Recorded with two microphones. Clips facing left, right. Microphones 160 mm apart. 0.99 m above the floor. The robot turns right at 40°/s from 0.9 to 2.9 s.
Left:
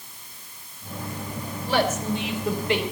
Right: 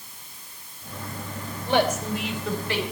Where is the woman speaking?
25° right, 4 m; by 2.8 s 25° left, 4 m.